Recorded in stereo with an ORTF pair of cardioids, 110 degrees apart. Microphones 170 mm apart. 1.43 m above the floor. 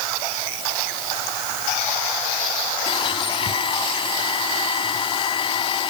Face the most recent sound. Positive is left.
turn(degrees=30)